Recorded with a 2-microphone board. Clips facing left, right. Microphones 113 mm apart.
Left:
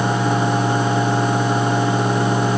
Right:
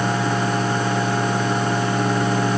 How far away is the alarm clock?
I don't hear an alarm clock.